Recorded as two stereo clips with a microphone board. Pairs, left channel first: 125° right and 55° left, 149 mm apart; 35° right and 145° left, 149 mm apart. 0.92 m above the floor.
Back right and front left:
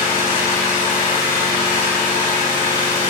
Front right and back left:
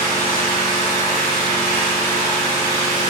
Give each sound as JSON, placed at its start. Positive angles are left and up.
{"t": 0.0, "sound": "an engine running", "azimuth_deg": -80, "distance_m": 1.4}